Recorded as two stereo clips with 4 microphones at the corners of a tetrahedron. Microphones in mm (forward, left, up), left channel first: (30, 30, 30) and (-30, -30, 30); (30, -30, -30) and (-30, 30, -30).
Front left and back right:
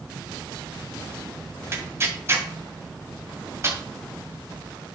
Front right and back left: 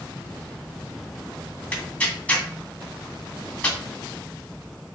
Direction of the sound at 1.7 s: 105° right.